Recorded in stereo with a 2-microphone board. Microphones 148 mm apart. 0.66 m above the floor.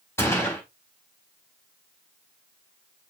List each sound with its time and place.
0.2 s a gunshot: 20° left (ahead or behind), 4 m